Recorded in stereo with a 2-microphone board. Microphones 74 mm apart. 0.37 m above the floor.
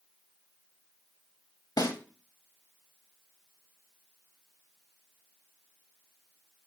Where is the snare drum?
60° left (ahead or behind), 0.8 m.